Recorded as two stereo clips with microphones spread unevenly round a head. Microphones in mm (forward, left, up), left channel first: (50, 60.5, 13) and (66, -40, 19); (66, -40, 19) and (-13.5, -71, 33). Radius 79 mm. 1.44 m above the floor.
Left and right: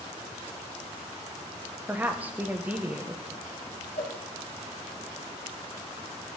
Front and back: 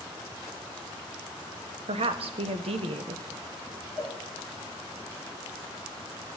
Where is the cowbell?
130° left, 3.5 m.